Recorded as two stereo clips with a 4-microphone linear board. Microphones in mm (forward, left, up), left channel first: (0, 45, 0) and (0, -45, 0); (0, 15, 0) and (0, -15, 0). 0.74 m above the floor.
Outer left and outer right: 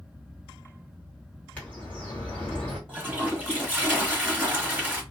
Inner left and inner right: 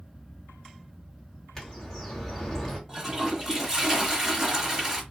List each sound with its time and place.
1.6 s a bird: 15° left (ahead or behind), 1.5 m
2.9 s a toilet flushing: 15° right (ahead or behind), 1.1 m